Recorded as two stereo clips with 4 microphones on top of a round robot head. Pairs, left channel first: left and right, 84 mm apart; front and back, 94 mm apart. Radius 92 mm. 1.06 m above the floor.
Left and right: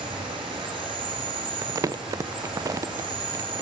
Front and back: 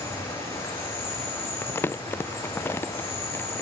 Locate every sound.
0.0 s an insect: 70° right, 3.5 m
1.6 s crumpling: 60° right, 0.6 m